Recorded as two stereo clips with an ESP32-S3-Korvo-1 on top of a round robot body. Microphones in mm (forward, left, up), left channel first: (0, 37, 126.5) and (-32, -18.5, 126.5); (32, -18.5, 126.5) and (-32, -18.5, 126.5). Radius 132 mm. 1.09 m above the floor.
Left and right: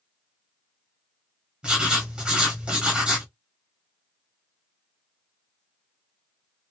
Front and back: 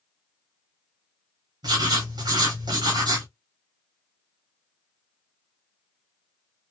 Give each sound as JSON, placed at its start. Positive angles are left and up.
{"t": 1.6, "sound": "writing", "azimuth_deg": 165, "distance_m": 0.9}